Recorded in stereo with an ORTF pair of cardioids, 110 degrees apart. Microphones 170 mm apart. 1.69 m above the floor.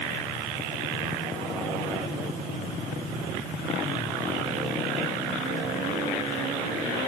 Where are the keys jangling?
No keys jangling in this recording.